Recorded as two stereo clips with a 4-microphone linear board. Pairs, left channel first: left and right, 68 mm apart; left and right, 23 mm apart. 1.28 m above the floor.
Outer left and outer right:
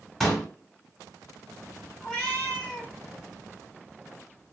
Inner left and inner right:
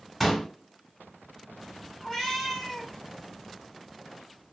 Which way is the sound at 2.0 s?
15° left (ahead or behind).